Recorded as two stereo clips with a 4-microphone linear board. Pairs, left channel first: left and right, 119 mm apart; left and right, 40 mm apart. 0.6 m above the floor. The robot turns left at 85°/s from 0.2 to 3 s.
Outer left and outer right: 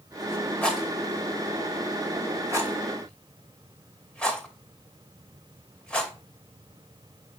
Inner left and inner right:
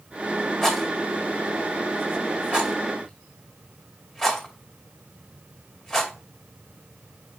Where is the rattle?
15° left (ahead or behind), 2 m; by 6.1 s 10° left (ahead or behind), 2 m.